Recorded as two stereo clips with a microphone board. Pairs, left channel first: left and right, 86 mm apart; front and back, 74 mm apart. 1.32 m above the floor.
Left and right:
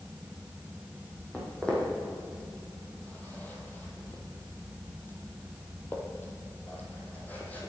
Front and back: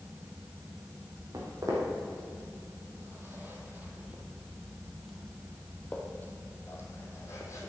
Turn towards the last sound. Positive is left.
turn(degrees=25)